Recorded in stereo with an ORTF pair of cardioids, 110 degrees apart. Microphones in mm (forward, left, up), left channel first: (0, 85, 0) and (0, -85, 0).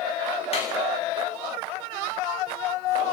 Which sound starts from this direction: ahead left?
A clap, at 0.5 s.